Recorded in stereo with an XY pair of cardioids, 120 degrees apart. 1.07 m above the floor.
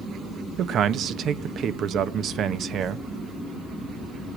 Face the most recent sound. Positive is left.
turn(degrees=-55)